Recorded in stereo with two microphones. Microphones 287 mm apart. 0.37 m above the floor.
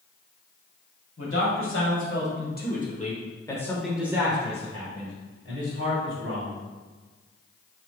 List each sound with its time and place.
1.2 s a man speaking: 55° left (ahead or behind), 1.7 m; by 6.6 s 55° right (ahead or behind), 1.7 m